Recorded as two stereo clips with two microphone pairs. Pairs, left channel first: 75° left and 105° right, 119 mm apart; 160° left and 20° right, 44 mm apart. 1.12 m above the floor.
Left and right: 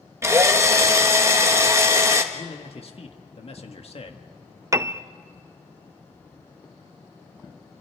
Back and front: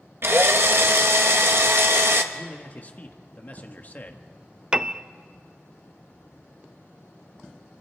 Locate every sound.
0.2 s a drill: 40° right, 1.4 m
2.3 s a man speaking: 110° left, 1.7 m
4.7 s a piano: 60° right, 0.5 m